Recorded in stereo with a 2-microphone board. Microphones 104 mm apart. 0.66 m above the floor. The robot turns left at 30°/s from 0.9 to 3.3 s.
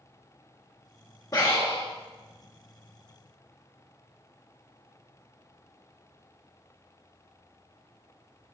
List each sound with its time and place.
1.3 s breathing: 35° left (ahead or behind), 1.6 m; by 1.9 s 20° left (ahead or behind), 1.6 m